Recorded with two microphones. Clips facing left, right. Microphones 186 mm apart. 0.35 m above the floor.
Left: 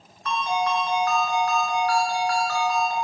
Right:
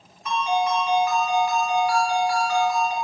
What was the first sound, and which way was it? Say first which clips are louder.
A ringtone: right 2 dB; 15° right (ahead or behind).